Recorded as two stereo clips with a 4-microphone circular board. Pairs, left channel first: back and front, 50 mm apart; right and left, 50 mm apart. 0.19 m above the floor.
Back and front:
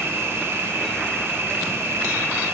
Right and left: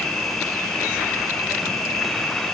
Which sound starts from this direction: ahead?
An insect, at 0.0 s.